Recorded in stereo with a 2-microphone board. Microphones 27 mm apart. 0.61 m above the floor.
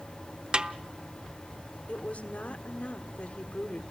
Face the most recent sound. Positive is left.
turn(degrees=60)  # may be behind; listen again after turning